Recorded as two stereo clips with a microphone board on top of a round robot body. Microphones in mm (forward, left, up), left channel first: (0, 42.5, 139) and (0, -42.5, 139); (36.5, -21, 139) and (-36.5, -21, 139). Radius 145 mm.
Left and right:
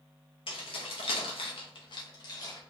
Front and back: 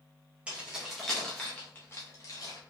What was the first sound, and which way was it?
Keys jangling, 105° left.